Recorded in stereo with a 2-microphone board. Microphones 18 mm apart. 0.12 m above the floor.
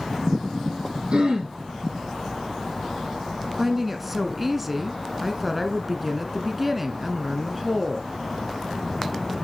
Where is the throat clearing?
55° right (ahead or behind), 3.5 m.